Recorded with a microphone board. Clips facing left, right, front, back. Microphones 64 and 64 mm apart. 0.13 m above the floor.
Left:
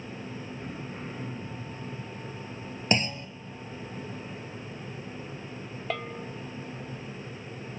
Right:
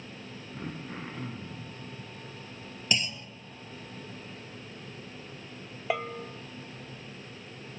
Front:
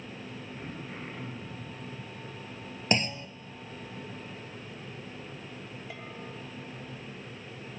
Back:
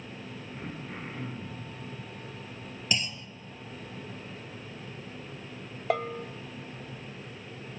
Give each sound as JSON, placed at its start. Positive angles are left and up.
{"t": 0.5, "sound": "throat clearing", "azimuth_deg": -100, "distance_m": 8.0}
{"t": 2.9, "sound": "a clunk", "azimuth_deg": 45, "distance_m": 0.9}
{"t": 5.9, "sound": "a bell", "azimuth_deg": -165, "distance_m": 0.7}